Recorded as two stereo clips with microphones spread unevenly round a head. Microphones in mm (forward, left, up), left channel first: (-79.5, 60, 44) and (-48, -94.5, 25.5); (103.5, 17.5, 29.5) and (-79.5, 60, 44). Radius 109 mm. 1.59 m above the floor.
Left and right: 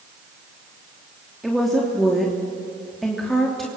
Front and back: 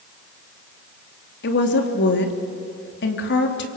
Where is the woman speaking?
15° left, 3 m.